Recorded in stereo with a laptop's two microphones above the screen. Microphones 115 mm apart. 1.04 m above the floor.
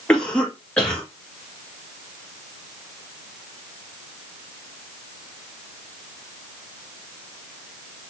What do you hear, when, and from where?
0.1 s a cough: 10° left (ahead or behind), 1.5 m